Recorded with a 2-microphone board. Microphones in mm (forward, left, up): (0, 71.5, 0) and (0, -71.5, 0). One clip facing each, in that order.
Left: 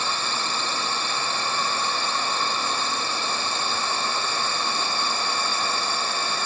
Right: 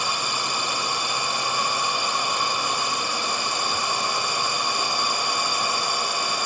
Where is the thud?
No thud in this recording.